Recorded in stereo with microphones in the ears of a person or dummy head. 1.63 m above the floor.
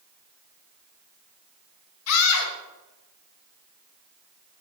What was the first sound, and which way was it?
A scream, 75° left (ahead or behind).